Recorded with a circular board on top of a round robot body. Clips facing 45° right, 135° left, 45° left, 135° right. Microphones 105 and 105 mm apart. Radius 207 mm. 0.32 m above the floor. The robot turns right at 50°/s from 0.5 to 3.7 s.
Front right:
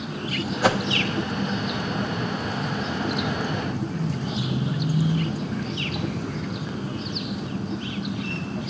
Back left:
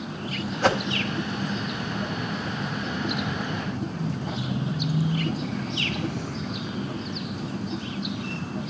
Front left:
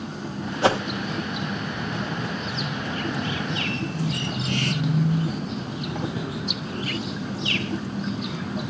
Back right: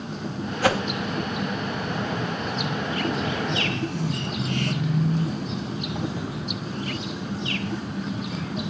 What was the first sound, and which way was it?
A whoosh, 30° left.